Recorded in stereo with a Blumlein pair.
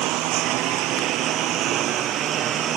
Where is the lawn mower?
40° right; by 2.8 s 30° right.